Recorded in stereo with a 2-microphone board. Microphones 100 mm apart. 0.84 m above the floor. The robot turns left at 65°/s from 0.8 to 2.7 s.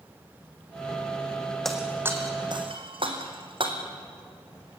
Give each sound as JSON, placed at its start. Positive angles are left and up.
{"t": 1.6, "sound": "breaking glass", "side_deg": 5, "distance_m": 2.5}